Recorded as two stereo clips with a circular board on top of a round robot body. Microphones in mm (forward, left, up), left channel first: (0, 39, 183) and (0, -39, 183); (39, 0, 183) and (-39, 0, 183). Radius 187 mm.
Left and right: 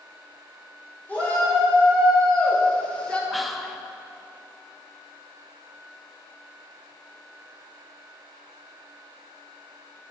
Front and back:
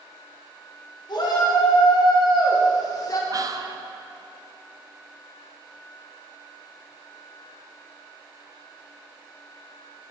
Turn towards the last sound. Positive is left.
turn(degrees=180)